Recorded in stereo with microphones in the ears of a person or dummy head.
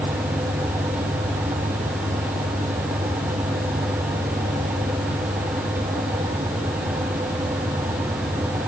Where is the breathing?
No breathing in this recording.